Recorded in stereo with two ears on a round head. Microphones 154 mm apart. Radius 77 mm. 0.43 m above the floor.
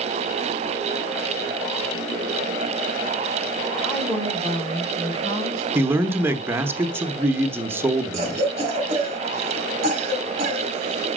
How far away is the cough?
About 3.5 m.